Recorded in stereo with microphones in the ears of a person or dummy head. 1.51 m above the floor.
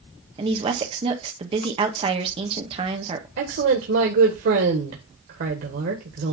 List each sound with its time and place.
0.4 s a woman speaking: 35° right (ahead or behind), 1.5 m
3.4 s a woman speaking: 65° right (ahead or behind), 1.6 m